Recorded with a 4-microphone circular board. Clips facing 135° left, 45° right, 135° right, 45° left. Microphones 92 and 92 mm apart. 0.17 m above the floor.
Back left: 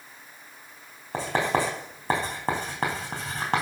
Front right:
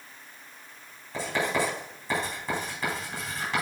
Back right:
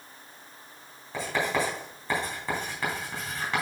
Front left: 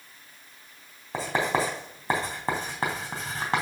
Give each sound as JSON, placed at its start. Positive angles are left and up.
{"t": 1.1, "sound": "writing", "azimuth_deg": 100, "distance_m": 3.5}